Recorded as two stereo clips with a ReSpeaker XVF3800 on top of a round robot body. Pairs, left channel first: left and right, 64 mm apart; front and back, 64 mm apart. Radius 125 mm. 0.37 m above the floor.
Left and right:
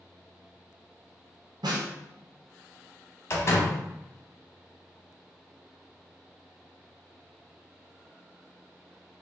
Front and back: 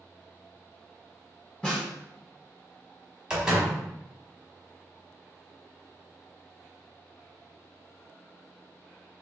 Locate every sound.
1.6 s a snare drum: 80° right, 0.8 m
3.3 s a door slam: 105° left, 1.0 m